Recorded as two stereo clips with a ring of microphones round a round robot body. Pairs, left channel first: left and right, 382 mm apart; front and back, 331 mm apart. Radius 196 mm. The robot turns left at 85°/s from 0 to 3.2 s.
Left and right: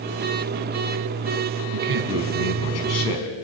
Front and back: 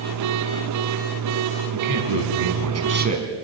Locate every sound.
1.7 s a man speaking: 130° right, 4.5 m; by 3.4 s 105° left, 4.5 m